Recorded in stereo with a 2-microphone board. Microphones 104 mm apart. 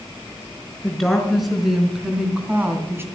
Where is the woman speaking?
5° left (ahead or behind), 4.5 m; by 3.0 s 25° right (ahead or behind), 2.5 m.